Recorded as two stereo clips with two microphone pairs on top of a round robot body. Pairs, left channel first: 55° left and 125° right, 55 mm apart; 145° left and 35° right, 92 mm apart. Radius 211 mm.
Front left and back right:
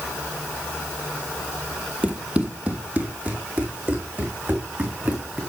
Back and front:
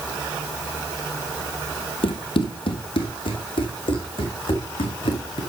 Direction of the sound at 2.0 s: 170° left.